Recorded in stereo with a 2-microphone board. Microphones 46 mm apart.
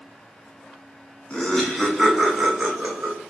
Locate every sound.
1.3 s laughter: 25° left (ahead or behind), 1.7 m; by 3.2 s 35° right (ahead or behind), 1.9 m